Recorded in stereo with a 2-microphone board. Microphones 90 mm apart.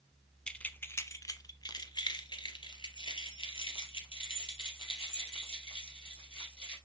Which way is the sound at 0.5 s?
10° left (ahead or behind).